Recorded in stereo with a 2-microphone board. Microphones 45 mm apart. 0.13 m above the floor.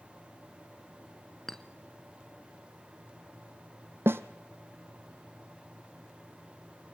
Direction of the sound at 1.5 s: 10° left (ahead or behind).